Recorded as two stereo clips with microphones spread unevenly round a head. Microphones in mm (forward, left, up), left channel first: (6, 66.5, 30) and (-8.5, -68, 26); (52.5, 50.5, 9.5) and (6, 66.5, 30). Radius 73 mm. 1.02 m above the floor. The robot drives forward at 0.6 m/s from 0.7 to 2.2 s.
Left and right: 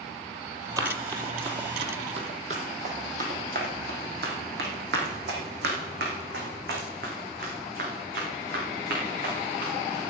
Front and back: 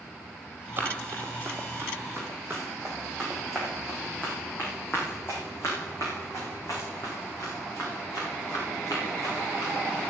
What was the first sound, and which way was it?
Running footsteps, 160° right.